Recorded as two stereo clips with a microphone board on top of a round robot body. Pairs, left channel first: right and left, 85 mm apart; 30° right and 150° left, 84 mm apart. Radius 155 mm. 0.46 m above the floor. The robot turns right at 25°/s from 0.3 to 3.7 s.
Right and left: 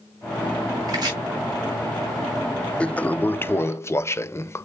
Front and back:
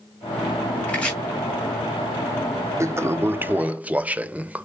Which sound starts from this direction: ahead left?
Chopping, at 0.9 s.